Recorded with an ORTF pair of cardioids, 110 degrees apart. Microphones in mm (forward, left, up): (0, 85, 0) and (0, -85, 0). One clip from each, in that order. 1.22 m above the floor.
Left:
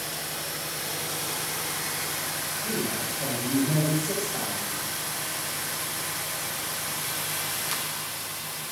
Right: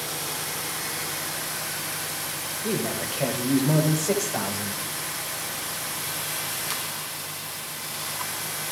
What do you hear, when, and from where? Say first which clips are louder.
2.6 s a man speaking: right 4 dB; 65° right, 5.5 m; by 4.8 s 55° right, 6 m